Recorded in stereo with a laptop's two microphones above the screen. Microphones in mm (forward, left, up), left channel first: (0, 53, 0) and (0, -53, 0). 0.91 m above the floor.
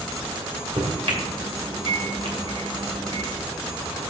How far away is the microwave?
About 2.5 m.